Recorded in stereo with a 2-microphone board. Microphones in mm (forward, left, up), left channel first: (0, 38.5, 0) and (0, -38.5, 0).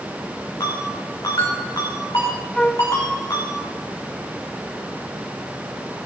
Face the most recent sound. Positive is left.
turn(degrees=10)  # may be behind; listen again after turning